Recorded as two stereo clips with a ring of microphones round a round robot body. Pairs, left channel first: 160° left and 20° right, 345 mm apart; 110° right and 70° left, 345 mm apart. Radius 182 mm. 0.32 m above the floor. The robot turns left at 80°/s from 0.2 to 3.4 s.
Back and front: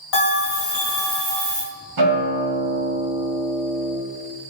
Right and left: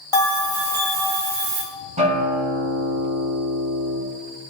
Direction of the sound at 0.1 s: 170° left.